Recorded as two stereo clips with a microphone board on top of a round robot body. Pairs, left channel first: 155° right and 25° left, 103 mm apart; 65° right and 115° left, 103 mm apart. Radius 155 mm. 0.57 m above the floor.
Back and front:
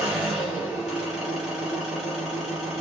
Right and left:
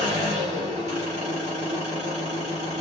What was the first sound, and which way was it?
An engine running, 110° left.